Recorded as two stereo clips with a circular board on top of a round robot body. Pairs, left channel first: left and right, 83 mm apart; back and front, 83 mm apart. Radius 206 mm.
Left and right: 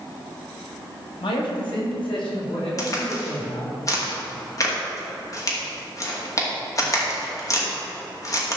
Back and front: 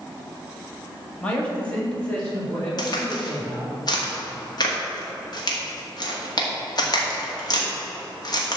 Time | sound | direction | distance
1.2 | a man speaking | 105° left | 2.5 m
2.8 | a crack | 140° left | 2 m